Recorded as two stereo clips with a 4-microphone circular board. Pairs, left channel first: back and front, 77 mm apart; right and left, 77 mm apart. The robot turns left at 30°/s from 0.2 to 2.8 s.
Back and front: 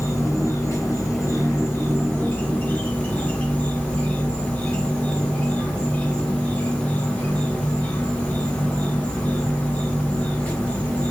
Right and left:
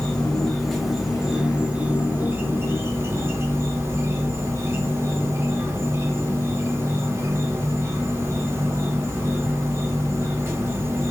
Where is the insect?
160° right, 1.1 m; by 11.1 s 125° left, 1.1 m.